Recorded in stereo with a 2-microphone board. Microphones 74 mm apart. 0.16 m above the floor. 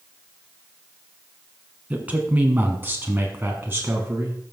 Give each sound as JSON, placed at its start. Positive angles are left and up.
{"t": 1.9, "sound": "a man speaking", "side_deg": -20, "distance_m": 1.4}